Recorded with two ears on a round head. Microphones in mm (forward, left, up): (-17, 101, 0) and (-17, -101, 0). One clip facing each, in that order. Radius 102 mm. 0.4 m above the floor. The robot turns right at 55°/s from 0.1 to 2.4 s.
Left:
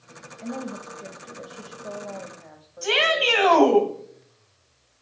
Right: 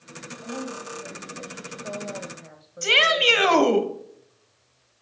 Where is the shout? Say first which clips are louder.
Even; 30° right (ahead or behind), 2 m.